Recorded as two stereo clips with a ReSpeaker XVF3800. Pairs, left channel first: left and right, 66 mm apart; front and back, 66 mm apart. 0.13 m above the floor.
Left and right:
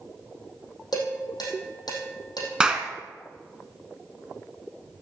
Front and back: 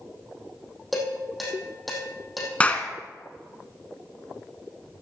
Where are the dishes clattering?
90° left, 4 m.